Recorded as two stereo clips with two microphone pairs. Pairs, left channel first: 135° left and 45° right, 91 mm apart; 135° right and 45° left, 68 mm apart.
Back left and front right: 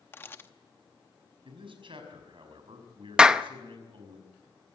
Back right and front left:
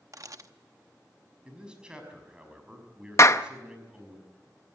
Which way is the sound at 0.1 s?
70° left.